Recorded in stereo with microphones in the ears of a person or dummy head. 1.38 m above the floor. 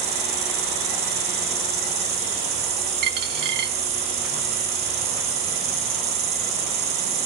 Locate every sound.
0.0 s an insect: 50° right (ahead or behind), 2 m
3.0 s a dropped coin: 55° right (ahead or behind), 1.9 m